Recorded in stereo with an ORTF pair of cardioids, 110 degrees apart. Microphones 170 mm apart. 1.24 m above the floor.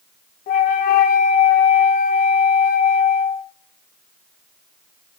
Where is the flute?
60° left, 0.7 m.